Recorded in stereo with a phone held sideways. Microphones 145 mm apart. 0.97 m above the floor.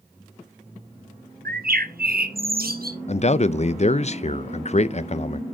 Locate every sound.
1.4 s a bird: 80° right, 0.8 m
3.1 s a man speaking: 45° left (ahead or behind), 0.5 m